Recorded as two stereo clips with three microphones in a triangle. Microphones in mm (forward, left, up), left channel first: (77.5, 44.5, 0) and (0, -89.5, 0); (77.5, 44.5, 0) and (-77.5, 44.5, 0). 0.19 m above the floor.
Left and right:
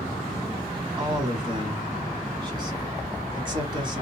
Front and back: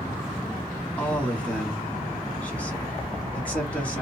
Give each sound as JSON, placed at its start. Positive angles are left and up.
{"t": 1.0, "sound": "a man speaking", "azimuth_deg": -80, "distance_m": 1.3}